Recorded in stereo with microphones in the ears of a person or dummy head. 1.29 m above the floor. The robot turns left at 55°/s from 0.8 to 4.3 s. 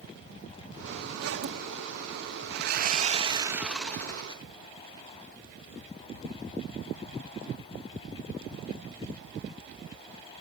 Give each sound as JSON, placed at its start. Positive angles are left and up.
{"t": 1.2, "sound": "a zipper", "side_deg": -85, "distance_m": 2.5}
{"t": 2.5, "sound": "sawing", "azimuth_deg": -115, "distance_m": 1.0}